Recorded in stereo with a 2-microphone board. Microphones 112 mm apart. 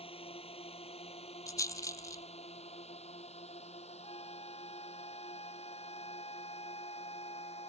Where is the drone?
55° left (ahead or behind); by 7.7 s 70° left (ahead or behind).